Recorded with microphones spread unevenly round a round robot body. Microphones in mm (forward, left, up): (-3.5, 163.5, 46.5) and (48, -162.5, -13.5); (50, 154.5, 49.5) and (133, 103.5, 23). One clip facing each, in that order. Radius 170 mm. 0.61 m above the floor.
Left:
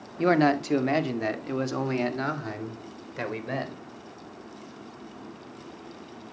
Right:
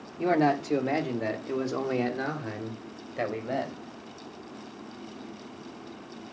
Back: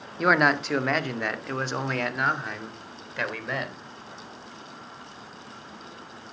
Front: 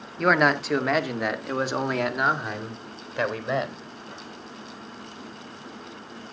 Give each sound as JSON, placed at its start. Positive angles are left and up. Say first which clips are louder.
{"t": 0.2, "sound": "a man speaking", "louder": "left 3 dB, front 1 dB", "azimuth_deg": 45, "distance_m": 1.5}